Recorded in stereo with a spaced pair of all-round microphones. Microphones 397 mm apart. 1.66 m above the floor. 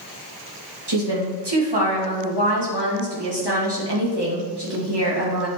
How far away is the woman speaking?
About 2.5 m.